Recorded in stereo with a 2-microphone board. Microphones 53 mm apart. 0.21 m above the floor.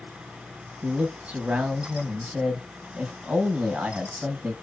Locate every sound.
0.8 s a man speaking: 20° right (ahead or behind), 1.4 m